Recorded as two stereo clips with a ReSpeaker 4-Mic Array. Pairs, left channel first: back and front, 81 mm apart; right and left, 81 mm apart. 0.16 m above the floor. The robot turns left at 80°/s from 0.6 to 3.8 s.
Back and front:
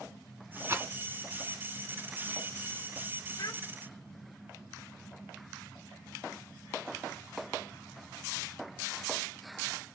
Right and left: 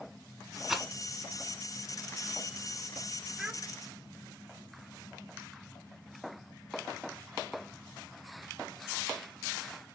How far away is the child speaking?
About 1.1 m.